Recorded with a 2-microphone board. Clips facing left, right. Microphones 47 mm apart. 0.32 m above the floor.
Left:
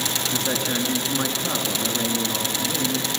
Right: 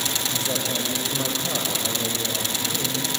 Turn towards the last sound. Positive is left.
turn(degrees=50)  # may be behind; listen again after turning